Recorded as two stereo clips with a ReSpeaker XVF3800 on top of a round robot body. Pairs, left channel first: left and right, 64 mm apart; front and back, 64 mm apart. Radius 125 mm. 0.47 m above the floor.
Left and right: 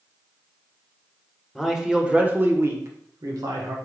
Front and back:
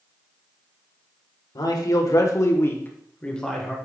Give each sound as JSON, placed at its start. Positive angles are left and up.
{"t": 1.6, "sound": "a man speaking", "azimuth_deg": 0, "distance_m": 1.9}